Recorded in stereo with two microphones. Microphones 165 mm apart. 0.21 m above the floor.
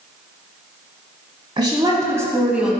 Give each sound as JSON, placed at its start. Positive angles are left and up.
{"t": 1.6, "sound": "a woman speaking", "side_deg": -30, "distance_m": 1.3}